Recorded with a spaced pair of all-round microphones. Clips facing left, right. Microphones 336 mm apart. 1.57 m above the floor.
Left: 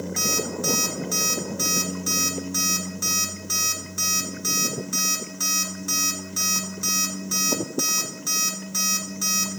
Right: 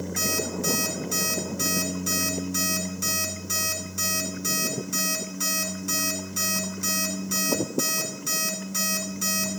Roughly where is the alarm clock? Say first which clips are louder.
Left 1 dB; right.